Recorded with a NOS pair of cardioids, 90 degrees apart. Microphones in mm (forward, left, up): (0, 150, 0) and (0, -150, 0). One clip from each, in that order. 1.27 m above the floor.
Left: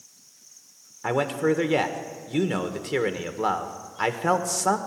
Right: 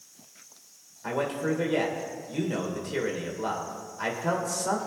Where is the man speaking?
55° left, 1.5 m.